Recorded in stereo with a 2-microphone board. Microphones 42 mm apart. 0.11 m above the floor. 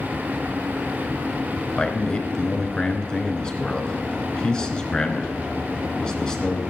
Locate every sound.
1.8 s a man speaking: 20° left (ahead or behind), 1.1 m